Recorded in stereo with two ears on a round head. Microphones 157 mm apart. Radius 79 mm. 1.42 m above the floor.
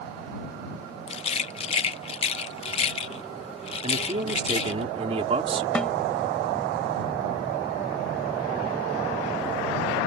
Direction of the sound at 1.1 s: 35° left (ahead or behind).